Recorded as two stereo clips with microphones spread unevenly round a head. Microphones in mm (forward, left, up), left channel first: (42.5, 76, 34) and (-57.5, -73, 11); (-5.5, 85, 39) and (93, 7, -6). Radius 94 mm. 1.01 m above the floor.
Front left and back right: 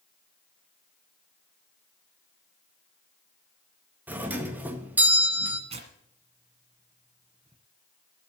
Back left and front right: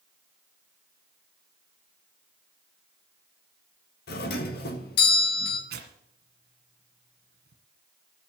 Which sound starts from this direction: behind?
A doorbell, at 4.1 s.